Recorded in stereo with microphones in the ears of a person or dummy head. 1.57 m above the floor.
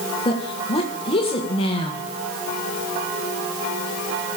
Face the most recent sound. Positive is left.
turn(degrees=25)  # may be behind; listen again after turning